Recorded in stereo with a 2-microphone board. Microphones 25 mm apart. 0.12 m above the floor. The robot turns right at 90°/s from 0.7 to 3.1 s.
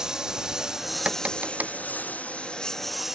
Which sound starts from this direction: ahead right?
A lawn mower, at 0.0 s.